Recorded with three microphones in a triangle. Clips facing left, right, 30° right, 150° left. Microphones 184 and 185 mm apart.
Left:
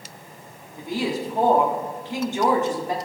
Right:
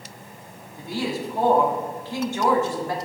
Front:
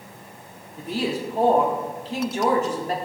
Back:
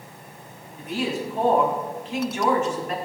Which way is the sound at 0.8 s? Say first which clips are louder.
Left 2 dB, front 1 dB; 20° left.